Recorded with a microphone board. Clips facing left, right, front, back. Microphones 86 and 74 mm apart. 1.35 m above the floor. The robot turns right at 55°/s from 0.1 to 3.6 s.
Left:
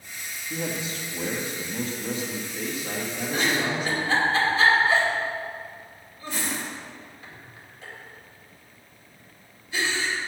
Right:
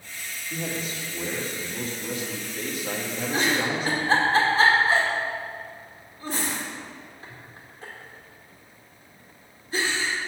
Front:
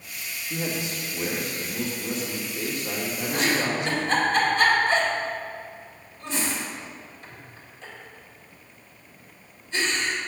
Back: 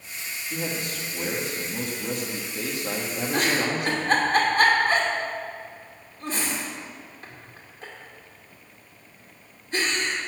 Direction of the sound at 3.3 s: 155° right.